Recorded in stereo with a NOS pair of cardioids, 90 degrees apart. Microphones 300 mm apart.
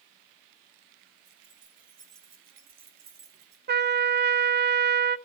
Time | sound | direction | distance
1.2 | keys jangling | 50° right | 4 m
3.7 | a trumpet | 35° right | 0.7 m